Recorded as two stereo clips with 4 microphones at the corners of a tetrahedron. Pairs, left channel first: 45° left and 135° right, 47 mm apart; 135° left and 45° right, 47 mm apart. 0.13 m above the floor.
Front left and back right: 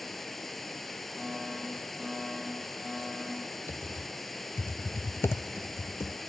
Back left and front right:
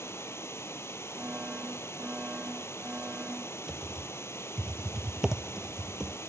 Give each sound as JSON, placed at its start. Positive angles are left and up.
{"t": 0.0, "sound": "running water", "azimuth_deg": 130, "distance_m": 1.4}
{"t": 1.2, "sound": "a fire alarm", "azimuth_deg": -50, "distance_m": 7.5}
{"t": 3.7, "sound": "typing on a keyboard", "azimuth_deg": 30, "distance_m": 0.6}